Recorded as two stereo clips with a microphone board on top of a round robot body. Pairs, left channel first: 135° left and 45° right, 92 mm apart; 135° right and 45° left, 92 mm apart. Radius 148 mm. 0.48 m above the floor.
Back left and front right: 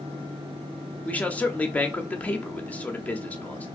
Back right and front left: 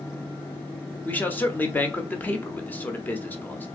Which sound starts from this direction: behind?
A man speaking, at 1.1 s.